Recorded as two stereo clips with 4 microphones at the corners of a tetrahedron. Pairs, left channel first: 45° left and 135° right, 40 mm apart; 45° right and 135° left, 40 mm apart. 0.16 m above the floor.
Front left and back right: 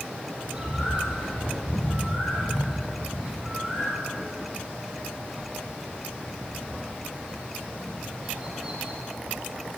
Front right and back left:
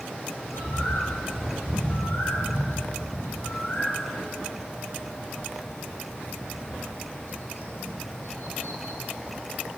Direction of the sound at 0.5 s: 60° right.